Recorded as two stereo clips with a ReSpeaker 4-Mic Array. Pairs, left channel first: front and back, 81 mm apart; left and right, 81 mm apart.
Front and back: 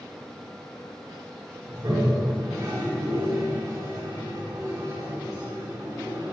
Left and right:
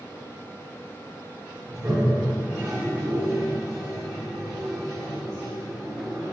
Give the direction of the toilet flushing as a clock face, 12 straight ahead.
5 o'clock.